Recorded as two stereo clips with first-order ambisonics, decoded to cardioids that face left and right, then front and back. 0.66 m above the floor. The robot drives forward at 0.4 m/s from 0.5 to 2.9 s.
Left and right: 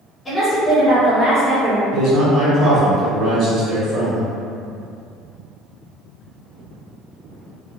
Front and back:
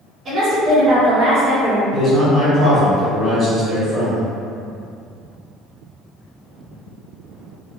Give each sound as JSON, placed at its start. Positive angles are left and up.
{"t": 0.2, "sound": "a woman speaking", "azimuth_deg": 165, "distance_m": 1.2}
{"t": 1.9, "sound": "a man speaking", "azimuth_deg": -105, "distance_m": 0.9}